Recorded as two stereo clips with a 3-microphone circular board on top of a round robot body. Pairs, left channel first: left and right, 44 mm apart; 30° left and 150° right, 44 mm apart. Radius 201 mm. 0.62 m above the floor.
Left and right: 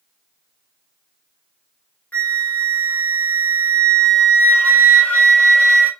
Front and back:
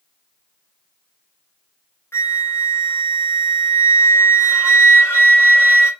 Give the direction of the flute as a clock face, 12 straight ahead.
11 o'clock.